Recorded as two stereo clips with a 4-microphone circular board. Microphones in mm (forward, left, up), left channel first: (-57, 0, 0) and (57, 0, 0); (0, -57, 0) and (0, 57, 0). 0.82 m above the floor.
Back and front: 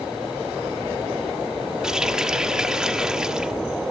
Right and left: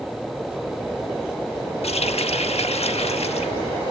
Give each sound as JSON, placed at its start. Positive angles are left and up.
{"t": 1.8, "sound": "a running tap", "azimuth_deg": -85, "distance_m": 1.2}